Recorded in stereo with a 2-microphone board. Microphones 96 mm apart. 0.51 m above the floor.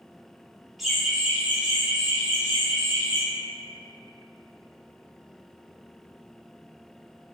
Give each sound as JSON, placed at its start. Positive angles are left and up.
{"t": 0.8, "sound": "laughter", "side_deg": 0, "distance_m": 1.2}